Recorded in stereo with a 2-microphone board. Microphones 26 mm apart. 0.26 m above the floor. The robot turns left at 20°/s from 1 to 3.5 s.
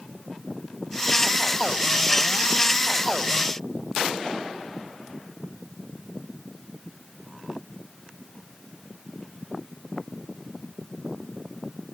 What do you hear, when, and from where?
Only background noise.